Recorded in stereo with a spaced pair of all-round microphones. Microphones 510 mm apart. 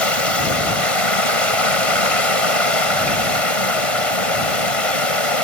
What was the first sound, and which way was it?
Running water, 85° left.